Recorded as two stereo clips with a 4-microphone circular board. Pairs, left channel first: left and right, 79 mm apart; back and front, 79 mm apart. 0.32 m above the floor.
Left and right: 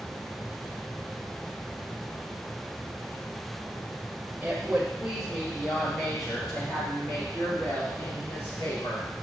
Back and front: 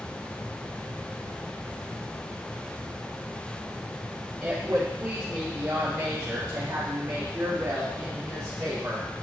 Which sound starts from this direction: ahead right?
A woman speaking, at 4.4 s.